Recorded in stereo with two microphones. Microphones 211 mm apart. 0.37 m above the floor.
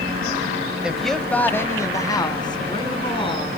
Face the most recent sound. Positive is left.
turn(degrees=25)  # may be behind; listen again after turning